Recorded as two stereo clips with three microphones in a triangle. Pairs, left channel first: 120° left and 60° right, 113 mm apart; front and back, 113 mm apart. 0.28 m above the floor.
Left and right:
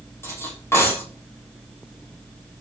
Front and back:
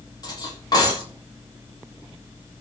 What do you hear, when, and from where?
0.2 s cutlery clinking: 50° left, 4.5 m